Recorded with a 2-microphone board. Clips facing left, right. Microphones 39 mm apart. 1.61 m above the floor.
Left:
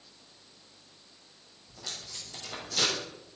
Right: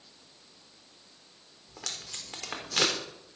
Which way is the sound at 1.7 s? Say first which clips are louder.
Right 1 dB; 80° right.